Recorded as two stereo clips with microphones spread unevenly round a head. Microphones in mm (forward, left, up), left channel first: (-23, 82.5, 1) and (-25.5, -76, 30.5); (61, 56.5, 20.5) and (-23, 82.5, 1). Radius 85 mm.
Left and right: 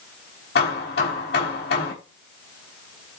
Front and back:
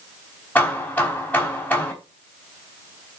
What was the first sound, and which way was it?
Hammering, 55° left.